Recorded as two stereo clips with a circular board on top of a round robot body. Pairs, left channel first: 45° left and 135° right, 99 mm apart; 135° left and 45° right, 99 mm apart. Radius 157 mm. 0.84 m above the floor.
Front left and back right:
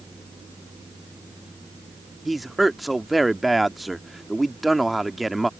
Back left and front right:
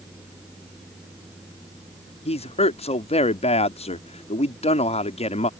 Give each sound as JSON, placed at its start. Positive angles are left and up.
{"t": 2.2, "sound": "a man speaking", "azimuth_deg": 135}